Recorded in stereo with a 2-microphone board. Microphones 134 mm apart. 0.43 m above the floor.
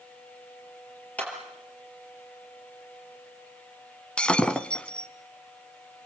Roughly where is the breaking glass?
Centre.